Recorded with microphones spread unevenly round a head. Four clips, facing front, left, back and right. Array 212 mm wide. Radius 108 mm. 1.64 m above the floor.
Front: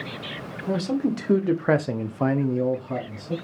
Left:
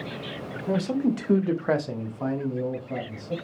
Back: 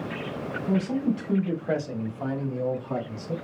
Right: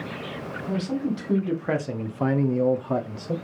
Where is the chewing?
I don't hear chewing.